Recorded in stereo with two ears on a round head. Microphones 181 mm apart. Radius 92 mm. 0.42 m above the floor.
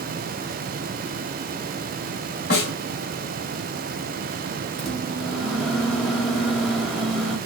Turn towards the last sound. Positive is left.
turn(degrees=0)  # may be behind; listen again after turning